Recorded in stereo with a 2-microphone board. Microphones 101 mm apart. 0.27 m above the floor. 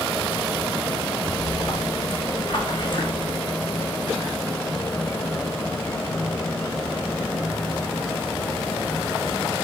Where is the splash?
45° left (ahead or behind), 5.5 m.